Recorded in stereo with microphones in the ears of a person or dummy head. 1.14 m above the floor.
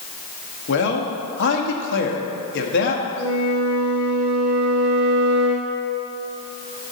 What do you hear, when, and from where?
0.7 s a man speaking: 70° left (ahead or behind), 1.6 m
3.2 s a flute: 30° left (ahead or behind), 4 m